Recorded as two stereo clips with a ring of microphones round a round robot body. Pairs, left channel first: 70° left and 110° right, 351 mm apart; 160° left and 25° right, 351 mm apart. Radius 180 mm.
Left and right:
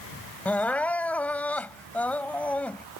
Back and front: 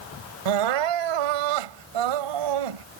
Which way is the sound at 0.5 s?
20° right.